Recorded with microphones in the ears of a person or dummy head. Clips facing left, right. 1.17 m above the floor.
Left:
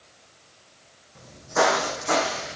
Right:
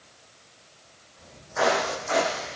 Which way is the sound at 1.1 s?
65° left (ahead or behind).